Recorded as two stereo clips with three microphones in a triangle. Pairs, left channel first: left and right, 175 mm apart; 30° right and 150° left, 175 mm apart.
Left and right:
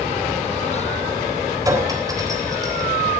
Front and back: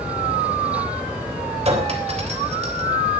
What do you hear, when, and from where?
1.6 s a clink: 160° right, 3.5 m